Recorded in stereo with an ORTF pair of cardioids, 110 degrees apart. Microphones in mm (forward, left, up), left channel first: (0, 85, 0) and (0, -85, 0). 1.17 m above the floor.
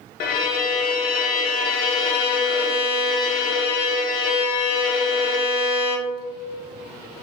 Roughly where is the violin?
Ahead left.